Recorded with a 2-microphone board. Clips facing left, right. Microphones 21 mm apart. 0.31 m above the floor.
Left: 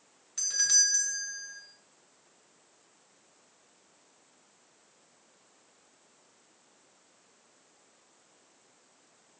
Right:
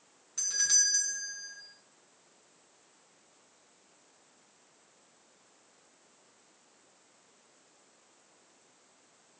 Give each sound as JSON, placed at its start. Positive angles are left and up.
{"t": 0.4, "sound": "a doorbell", "side_deg": 15, "distance_m": 1.8}